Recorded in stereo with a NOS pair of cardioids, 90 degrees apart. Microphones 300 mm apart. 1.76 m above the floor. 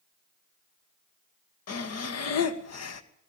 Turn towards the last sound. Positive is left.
turn(degrees=55)